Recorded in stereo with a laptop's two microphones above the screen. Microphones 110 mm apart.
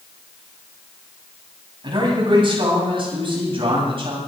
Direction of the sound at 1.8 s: 50° right (ahead or behind).